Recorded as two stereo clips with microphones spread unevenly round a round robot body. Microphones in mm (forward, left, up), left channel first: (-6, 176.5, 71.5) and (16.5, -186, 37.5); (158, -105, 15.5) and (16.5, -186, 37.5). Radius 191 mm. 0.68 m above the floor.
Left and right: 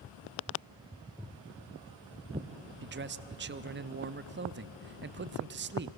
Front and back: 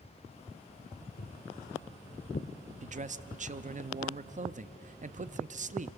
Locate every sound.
1.2 s footsteps: straight ahead, 2.5 m; by 2.5 s 15° right, 1.5 m
2.8 s a man speaking: 125° right, 0.8 m